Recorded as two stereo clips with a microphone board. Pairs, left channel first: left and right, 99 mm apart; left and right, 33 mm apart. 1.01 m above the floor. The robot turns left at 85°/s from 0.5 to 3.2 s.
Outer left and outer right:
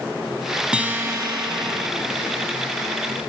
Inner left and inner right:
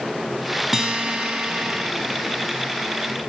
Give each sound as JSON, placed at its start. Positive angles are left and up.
{"t": 0.7, "sound": "a guitar", "azimuth_deg": -10, "distance_m": 1.3}